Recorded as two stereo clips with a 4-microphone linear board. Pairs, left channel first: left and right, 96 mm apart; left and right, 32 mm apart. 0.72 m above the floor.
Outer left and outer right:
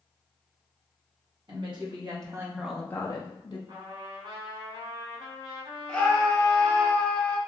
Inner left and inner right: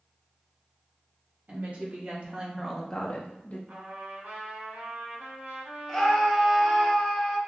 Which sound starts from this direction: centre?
A scream, at 5.9 s.